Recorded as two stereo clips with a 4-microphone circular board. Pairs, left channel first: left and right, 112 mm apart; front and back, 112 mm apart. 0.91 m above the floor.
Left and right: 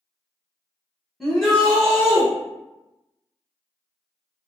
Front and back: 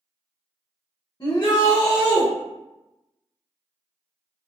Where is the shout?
5° left, 0.9 m.